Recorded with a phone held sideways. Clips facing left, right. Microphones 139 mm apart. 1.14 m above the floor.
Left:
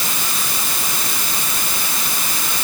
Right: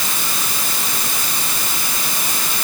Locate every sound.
Only background noise.